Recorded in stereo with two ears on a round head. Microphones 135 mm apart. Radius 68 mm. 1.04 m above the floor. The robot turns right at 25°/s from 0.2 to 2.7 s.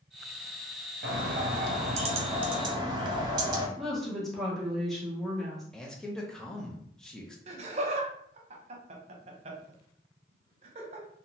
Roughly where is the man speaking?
Centre.